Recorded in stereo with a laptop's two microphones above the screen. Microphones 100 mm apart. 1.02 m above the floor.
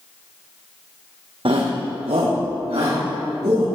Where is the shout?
60° right (ahead or behind), 0.5 m; by 3.6 s 80° right, 1.6 m.